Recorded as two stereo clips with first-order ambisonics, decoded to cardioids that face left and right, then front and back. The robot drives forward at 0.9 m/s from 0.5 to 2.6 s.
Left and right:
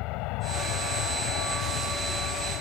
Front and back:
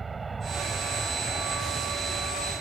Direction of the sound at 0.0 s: 110° left.